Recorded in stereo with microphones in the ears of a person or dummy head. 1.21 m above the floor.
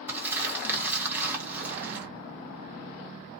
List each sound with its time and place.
0.1 s crumpling: 10° right (ahead or behind), 0.8 m